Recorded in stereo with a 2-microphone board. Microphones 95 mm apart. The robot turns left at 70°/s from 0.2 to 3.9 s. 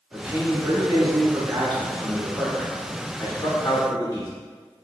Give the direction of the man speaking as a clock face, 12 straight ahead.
1 o'clock.